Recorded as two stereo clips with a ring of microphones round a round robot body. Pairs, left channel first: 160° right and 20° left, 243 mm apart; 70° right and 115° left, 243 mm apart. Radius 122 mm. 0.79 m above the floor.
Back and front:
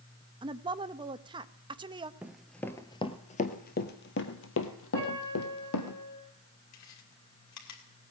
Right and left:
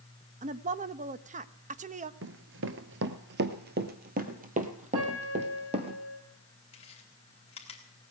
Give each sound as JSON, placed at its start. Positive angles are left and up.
{"t": 0.4, "sound": "a woman speaking", "azimuth_deg": 80, "distance_m": 0.7}
{"t": 2.2, "sound": "running footsteps", "azimuth_deg": 105, "distance_m": 1.0}
{"t": 4.9, "sound": "a piano", "azimuth_deg": 120, "distance_m": 9.0}
{"t": 6.7, "sound": "chewing", "azimuth_deg": -135, "distance_m": 3.0}